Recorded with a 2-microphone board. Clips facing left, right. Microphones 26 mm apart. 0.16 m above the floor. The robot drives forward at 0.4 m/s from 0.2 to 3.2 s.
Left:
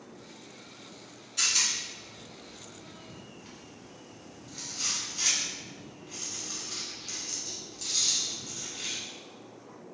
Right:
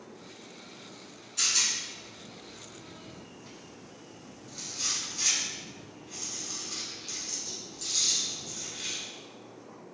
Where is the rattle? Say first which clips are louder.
Even; 15° left (ahead or behind), 0.8 m; by 9.0 s 10° left (ahead or behind), 1.4 m.